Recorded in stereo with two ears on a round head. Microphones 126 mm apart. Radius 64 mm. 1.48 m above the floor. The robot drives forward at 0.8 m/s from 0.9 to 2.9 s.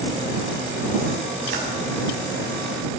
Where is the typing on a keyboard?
65° right (ahead or behind), 7 m.